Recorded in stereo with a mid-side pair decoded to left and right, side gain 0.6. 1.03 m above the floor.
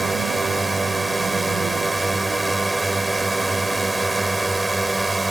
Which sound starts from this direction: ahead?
A drone, at 0.0 s.